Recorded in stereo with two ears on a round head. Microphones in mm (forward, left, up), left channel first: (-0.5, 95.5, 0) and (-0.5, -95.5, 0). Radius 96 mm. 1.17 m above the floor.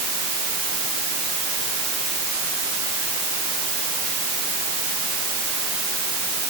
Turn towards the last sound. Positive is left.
No sound to turn to.